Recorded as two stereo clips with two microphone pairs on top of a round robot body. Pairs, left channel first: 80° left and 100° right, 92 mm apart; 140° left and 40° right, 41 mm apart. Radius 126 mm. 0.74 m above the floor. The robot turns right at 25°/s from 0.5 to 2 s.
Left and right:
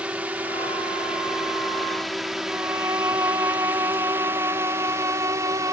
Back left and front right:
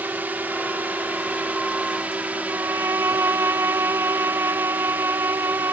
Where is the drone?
30° right; by 5.7 s 60° right.